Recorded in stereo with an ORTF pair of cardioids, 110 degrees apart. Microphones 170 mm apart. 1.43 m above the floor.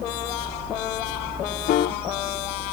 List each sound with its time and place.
1.7 s a piano: 60° left, 0.6 m